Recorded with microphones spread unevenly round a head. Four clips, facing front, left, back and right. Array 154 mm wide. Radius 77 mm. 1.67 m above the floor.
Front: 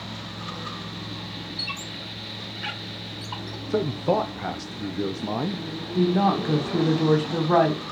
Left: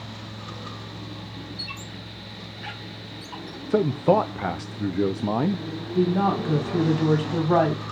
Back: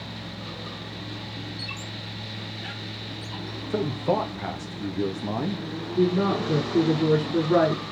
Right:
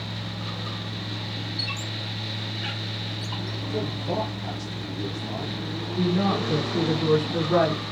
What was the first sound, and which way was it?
A squeak, 20° right.